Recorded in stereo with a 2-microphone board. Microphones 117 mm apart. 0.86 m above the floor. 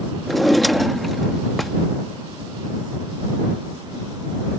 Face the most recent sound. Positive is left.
turn(degrees=0)  # may be behind; listen again after turning